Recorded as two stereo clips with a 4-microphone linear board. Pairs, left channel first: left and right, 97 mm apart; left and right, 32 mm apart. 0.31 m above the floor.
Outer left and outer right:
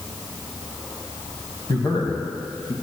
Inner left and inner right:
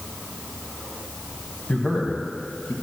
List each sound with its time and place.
1.7 s a man speaking: 50° left (ahead or behind), 2 m; by 2.7 s 65° left (ahead or behind), 3 m